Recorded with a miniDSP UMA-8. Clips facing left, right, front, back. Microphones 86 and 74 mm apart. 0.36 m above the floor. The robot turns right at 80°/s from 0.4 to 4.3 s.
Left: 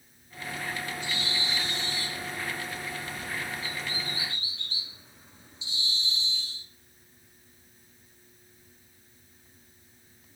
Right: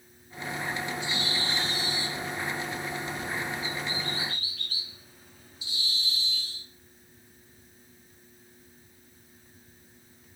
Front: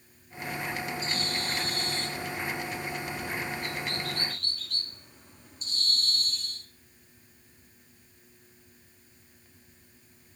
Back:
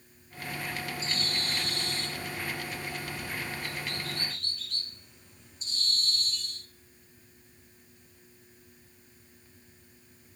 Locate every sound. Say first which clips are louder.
1.0 s a bird: right 2 dB, front 2 dB; 125° left, 2.0 m; by 6.7 s 30° left, 2.0 m